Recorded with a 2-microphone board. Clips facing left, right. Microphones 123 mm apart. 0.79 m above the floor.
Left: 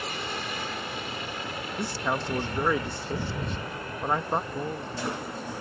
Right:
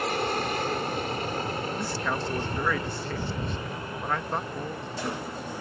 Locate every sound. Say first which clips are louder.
0.0 s an aircraft: right 7 dB; 55° right (ahead or behind); by 5.6 s 15° right (ahead or behind)
1.8 s a man speaking: even; 20° left (ahead or behind)
4.5 s a man speaking: left 1 dB; 15° left (ahead or behind)